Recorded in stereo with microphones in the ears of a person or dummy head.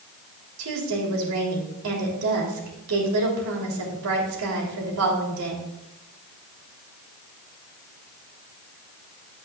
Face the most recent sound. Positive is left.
turn(degrees=-80)